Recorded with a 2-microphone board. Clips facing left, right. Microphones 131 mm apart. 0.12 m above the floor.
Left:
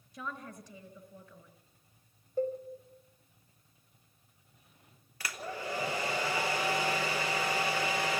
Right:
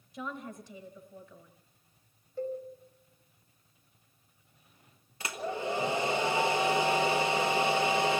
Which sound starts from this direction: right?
A hair dryer, at 5.2 s.